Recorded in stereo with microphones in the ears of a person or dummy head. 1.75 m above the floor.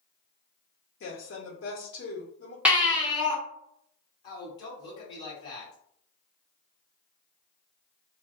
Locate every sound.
1.0 s a woman speaking: 60° left (ahead or behind), 1.3 m
2.6 s a baby crying: 5° right (ahead or behind), 0.7 m
4.2 s a man speaking: 30° left (ahead or behind), 1.4 m